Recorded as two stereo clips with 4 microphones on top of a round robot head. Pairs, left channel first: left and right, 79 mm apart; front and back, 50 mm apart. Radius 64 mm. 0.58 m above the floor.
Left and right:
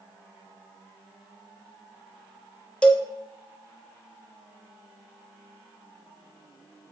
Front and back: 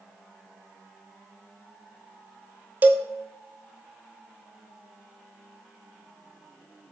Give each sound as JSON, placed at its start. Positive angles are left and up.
{"t": 2.8, "sound": "a cowbell", "azimuth_deg": 160, "distance_m": 0.5}